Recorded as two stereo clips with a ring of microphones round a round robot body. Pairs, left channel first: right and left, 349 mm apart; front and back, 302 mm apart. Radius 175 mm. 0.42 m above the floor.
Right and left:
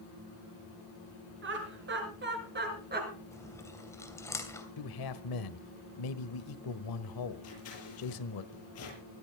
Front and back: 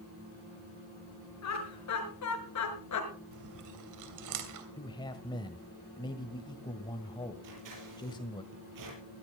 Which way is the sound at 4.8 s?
75° right.